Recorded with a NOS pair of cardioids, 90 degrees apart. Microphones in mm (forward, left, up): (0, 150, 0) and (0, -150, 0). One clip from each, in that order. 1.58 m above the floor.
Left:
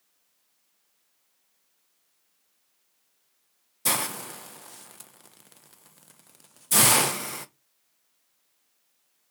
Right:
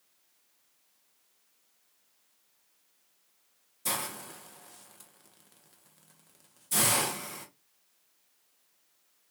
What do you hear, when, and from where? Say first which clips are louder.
3.9 s a hiss: left 7 dB; 40° left, 0.6 m